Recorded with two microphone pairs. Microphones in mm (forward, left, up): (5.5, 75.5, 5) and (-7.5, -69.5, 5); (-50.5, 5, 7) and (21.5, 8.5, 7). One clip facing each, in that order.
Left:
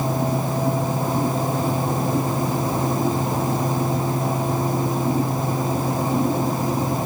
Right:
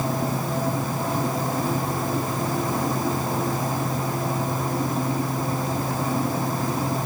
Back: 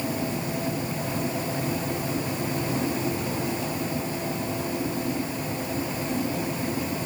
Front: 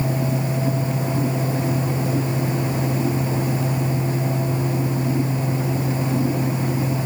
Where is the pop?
No pop in this recording.